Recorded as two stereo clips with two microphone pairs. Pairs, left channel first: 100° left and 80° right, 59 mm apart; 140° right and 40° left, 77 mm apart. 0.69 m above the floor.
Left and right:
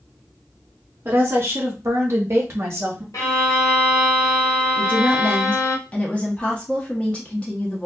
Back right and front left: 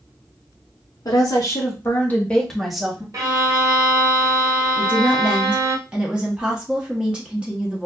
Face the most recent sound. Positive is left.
turn(degrees=90)